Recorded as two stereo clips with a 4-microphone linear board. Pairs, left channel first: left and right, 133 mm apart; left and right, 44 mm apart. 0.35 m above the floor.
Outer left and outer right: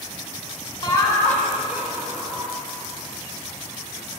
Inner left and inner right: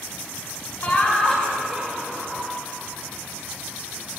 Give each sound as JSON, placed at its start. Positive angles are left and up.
{"t": 0.8, "sound": "laughter", "side_deg": 35, "distance_m": 1.4}